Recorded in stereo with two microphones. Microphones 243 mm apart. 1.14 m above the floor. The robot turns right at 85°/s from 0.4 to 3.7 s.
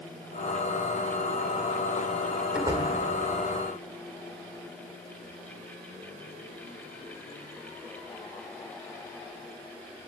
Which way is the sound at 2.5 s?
5° right (ahead or behind).